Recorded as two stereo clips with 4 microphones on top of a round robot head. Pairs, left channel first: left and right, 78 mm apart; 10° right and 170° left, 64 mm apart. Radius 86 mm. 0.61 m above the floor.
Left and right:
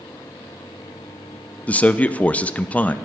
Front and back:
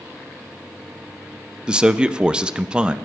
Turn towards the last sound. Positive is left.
turn(degrees=120)